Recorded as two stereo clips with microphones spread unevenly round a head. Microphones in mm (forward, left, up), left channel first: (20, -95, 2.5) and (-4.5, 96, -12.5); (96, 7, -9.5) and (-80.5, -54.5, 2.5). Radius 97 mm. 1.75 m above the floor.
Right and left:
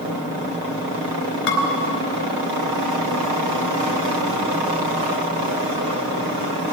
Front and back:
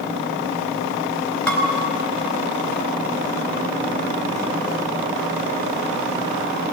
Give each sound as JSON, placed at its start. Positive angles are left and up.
{"t": 1.5, "sound": "dishes clattering", "azimuth_deg": -70, "distance_m": 4.0}